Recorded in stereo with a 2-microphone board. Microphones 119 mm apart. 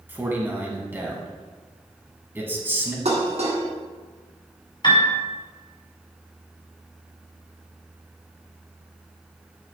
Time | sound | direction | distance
0.1 | a man speaking | 20° right (ahead or behind) | 1.8 m
3.0 | dishes clattering | 65° right (ahead or behind) | 1.9 m
4.8 | a piano | 40° left (ahead or behind) | 2.0 m